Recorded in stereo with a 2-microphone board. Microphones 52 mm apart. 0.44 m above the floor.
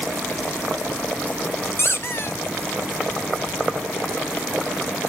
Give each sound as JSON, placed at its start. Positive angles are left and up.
{"t": 1.8, "sound": "a squeak", "side_deg": 55, "distance_m": 1.2}